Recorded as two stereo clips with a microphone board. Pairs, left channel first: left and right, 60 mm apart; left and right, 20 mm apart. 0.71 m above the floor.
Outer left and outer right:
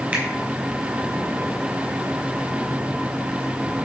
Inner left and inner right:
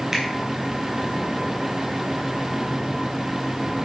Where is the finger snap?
20° right (ahead or behind), 4 m.